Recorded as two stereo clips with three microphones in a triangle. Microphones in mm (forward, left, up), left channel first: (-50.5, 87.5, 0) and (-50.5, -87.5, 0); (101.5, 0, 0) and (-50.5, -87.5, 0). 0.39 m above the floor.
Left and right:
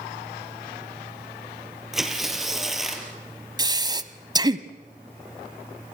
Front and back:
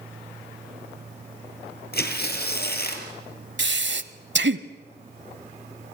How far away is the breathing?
About 1.1 m.